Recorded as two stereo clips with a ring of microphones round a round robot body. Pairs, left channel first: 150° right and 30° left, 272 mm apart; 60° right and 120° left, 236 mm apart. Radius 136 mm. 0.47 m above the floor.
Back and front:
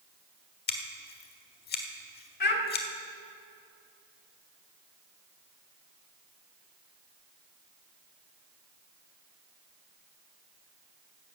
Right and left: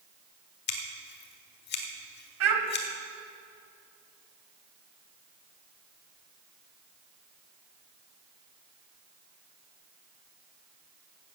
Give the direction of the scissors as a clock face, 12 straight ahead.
3 o'clock.